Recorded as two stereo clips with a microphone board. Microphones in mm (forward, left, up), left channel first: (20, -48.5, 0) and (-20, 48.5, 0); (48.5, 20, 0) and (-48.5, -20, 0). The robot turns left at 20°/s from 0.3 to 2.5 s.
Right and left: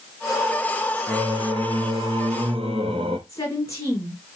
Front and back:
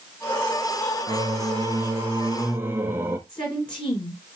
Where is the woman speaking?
10° right, 3.5 m.